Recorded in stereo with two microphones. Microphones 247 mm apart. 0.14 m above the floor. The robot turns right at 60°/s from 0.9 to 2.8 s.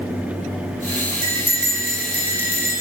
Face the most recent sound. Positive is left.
turn(degrees=-60)